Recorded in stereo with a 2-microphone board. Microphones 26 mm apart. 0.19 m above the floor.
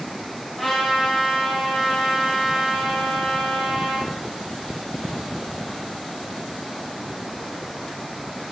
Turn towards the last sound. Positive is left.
turn(degrees=-5)  # may be behind; listen again after turning